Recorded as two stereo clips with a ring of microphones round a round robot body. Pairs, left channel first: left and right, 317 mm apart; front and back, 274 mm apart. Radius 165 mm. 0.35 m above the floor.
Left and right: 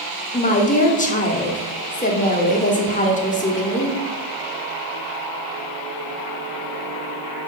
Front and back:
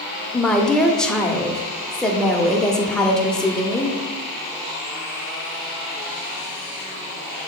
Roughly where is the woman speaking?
Left.